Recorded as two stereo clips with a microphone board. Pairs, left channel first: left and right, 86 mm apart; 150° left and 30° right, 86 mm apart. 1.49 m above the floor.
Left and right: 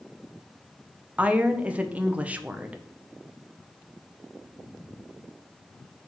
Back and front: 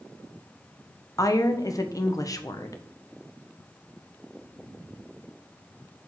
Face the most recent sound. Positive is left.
turn(degrees=-165)